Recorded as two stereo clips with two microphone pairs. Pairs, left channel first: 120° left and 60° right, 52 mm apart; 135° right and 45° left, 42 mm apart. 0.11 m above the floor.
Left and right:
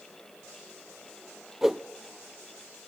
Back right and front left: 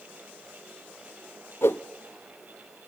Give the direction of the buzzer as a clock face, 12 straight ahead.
No buzzer in this recording.